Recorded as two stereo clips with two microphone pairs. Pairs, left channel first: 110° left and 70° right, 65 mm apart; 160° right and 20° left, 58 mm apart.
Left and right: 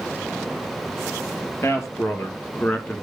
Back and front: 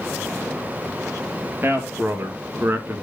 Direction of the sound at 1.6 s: 70° left.